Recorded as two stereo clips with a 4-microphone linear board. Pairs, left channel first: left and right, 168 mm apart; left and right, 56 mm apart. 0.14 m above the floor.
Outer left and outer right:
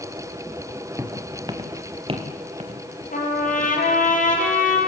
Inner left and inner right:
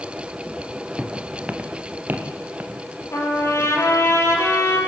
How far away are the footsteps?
About 2.5 m.